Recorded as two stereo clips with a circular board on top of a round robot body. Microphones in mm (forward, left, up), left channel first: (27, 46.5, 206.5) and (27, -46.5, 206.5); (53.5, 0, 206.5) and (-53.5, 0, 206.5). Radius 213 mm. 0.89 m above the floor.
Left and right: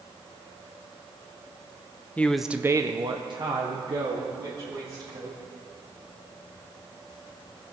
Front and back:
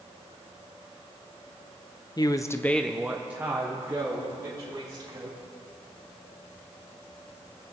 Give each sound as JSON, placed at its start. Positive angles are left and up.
{"t": 2.2, "sound": "a man speaking", "azimuth_deg": 25, "distance_m": 1.0}